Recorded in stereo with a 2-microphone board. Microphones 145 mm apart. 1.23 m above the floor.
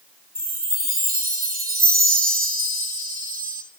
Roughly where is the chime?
Right.